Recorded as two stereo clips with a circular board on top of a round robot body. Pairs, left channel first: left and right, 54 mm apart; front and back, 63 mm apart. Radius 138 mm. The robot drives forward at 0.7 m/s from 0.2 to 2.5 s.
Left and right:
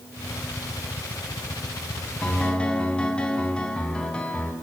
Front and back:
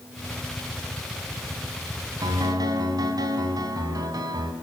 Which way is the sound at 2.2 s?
160° left.